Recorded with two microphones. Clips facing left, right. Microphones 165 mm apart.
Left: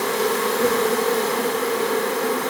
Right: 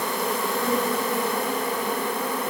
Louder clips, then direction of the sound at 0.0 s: Left 5 dB; 65° left (ahead or behind).